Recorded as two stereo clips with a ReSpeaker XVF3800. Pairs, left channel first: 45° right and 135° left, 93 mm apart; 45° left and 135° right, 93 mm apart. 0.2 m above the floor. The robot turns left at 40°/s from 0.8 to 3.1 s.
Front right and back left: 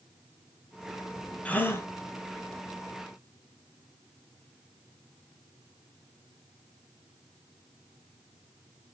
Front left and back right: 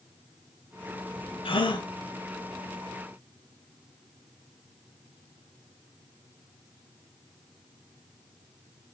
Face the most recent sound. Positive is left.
turn(degrees=-35)